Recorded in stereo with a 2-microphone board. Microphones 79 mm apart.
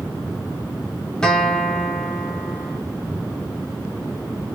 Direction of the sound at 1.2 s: 10° left (ahead or behind).